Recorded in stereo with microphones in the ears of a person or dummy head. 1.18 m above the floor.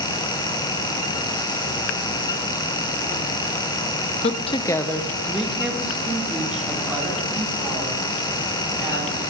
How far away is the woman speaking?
About 0.6 m.